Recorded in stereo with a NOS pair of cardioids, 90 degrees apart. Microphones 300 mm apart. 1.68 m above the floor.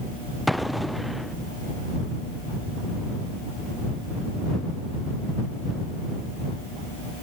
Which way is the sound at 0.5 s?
Straight ahead.